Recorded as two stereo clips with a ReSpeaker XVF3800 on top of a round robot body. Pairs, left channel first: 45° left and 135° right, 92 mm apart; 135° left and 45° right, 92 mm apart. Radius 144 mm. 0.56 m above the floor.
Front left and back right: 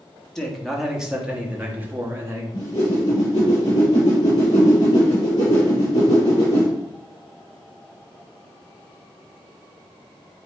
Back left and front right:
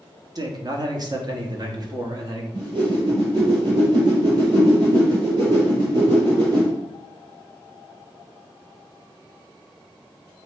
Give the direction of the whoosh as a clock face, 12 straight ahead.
12 o'clock.